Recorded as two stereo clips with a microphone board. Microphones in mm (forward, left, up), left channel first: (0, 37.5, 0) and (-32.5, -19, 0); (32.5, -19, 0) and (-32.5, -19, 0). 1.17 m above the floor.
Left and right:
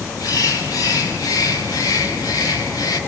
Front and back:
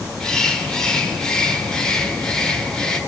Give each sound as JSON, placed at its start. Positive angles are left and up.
{"t": 0.2, "sound": "a bird", "azimuth_deg": 80, "distance_m": 2.5}